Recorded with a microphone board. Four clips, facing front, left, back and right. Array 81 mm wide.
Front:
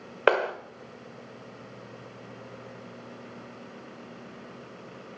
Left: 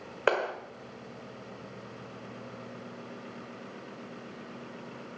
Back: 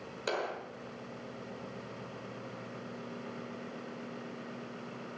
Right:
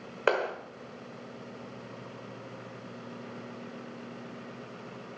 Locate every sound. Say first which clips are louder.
0.3 s a clap: even, front 12 dB; straight ahead, 1.3 m